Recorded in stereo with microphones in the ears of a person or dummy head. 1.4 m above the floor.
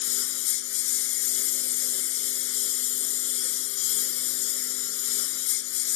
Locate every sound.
0.0 s a lawn mower: 65° left (ahead or behind)